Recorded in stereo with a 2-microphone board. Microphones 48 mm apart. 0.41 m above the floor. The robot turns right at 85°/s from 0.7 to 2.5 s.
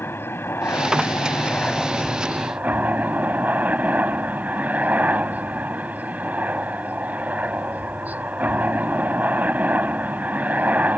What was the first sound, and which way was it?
A helicopter, 65° left.